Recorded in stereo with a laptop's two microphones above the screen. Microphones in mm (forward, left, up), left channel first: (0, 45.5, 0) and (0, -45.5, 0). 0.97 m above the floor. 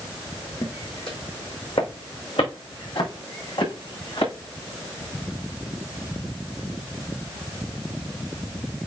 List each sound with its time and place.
0.6 s footsteps: 75° left (ahead or behind), 3 m